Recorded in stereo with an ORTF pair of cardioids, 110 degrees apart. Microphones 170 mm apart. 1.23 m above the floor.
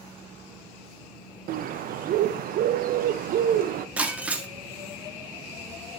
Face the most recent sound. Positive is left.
turn(degrees=-10)